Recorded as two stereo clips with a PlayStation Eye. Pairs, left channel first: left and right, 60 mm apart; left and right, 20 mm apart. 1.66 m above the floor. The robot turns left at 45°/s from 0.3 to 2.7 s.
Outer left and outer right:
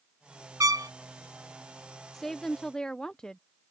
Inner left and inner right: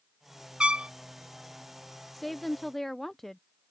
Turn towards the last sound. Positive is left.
turn(degrees=15)  # may be behind; listen again after turning